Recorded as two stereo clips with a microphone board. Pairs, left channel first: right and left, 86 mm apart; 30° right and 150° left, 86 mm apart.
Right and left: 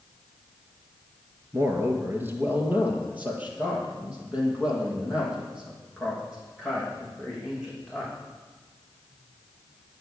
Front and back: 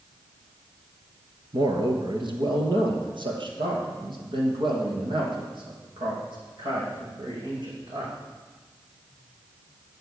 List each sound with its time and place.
1.5 s a man speaking: 145° left, 2.5 m; by 8.1 s 175° left, 10.5 m